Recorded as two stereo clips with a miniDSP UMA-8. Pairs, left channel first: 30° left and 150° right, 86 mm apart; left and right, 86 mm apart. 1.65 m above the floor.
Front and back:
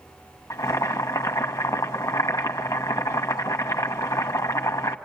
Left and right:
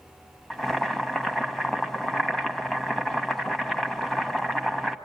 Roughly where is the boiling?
Ahead.